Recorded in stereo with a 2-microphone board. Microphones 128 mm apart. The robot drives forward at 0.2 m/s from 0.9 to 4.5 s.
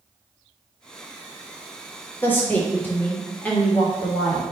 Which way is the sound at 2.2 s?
15° left (ahead or behind).